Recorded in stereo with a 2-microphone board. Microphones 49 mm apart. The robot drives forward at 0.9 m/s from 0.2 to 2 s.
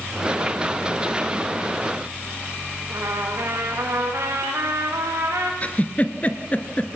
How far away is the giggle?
About 1.6 m.